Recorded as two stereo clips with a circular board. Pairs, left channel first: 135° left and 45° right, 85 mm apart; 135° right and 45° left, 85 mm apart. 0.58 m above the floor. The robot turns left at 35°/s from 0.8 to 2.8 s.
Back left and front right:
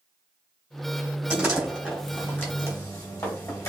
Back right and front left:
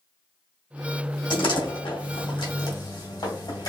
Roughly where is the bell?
I don't hear a bell.